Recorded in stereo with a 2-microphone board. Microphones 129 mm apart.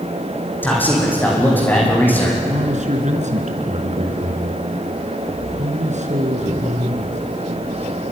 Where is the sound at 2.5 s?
65° right (ahead or behind), 3.5 m.